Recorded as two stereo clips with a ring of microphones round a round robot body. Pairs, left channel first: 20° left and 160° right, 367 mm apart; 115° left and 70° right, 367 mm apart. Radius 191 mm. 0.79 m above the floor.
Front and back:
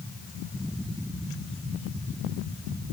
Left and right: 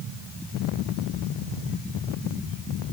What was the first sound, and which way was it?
Only background noise.